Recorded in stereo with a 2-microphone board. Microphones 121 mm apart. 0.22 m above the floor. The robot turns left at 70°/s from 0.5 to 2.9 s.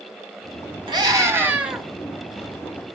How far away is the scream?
About 1.3 m.